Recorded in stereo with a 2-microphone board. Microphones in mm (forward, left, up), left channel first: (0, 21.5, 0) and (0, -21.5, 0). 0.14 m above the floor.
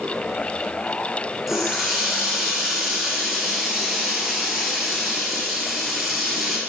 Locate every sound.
1.5 s a running tap: 5° right (ahead or behind), 1.7 m